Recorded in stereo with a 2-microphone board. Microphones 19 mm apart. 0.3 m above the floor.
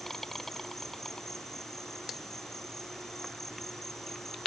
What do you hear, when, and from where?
0.0 s an insect: 20° left (ahead or behind)